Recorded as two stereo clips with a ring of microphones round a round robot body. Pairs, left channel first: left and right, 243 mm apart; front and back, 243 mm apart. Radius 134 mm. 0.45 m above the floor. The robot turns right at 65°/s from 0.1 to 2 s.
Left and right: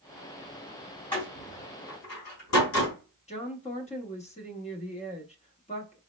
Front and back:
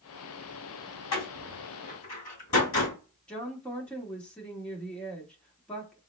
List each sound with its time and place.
1.1 s a door slam: 5° left, 3 m; by 3.0 s 65° left, 3 m
3.3 s a woman speaking: 80° left, 1.0 m